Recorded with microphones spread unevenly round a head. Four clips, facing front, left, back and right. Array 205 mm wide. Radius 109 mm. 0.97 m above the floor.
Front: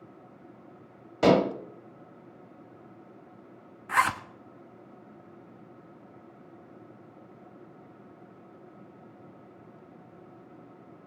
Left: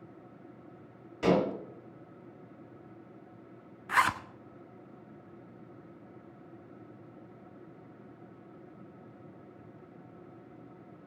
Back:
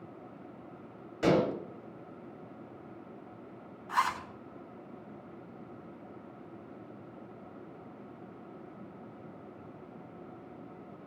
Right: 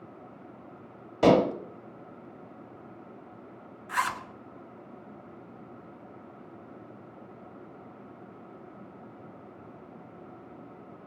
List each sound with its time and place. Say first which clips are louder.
1.2 s dishes clattering: right 6 dB, front 5 dB; 55° right, 1.4 m
3.9 s a zipper: left 2 dB, front 4 dB; 45° left, 0.8 m